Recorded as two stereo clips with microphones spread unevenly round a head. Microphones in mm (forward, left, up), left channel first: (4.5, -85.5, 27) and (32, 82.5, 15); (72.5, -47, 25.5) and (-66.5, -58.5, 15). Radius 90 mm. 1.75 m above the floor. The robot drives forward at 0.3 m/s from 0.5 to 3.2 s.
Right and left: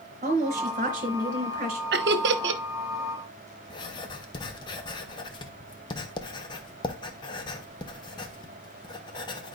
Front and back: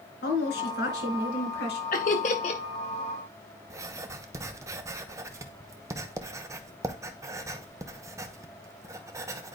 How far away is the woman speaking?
About 2.5 m.